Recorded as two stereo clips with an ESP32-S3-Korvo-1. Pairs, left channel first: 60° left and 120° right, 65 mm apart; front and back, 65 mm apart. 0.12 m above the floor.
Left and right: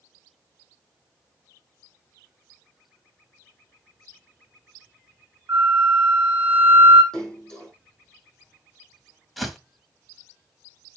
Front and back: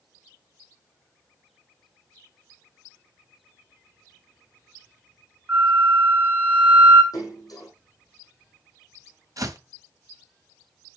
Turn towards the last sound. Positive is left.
turn(degrees=150)